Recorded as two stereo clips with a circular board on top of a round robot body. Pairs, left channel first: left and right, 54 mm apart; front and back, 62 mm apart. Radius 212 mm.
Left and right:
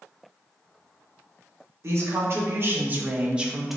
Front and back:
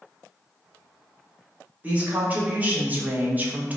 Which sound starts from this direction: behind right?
A woman speaking, at 1.8 s.